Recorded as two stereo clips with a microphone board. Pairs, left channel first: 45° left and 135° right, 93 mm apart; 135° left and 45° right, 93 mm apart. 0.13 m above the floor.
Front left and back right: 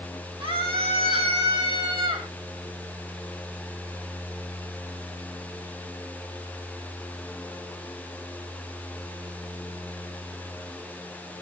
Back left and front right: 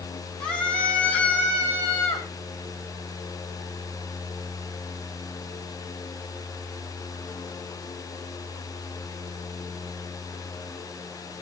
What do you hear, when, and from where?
0.4 s a scream: 145° right, 4.5 m; by 2.3 s 160° right, 4.5 m